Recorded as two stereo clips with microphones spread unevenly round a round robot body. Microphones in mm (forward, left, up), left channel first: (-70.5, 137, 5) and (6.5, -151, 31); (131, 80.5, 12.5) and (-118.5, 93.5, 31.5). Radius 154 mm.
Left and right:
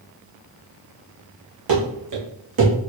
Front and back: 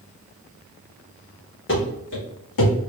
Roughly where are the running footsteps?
Ahead right.